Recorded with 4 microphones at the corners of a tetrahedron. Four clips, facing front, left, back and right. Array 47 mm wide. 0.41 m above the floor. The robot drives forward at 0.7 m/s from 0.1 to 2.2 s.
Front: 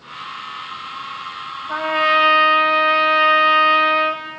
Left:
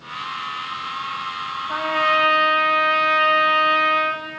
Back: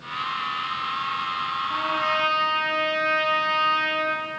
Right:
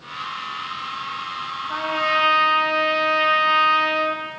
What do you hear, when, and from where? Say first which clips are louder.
1.7 s a trumpet: left 2 dB, front 10 dB; 10° left, 1.3 m